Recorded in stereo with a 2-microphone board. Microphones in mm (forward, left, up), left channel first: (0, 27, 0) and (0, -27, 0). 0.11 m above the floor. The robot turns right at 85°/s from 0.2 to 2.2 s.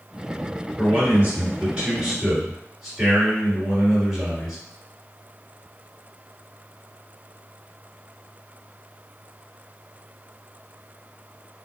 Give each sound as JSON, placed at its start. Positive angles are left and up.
{"t": 0.8, "sound": "a man speaking", "azimuth_deg": -125, "distance_m": 2.0}